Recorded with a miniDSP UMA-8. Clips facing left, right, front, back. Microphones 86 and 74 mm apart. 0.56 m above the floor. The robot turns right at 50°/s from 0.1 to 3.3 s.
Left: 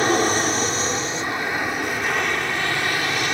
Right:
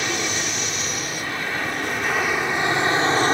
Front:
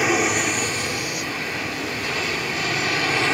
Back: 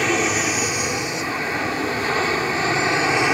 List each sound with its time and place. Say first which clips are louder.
0.0 s an aircraft: left 7 dB, even; 80° left; by 3.4 s 120° right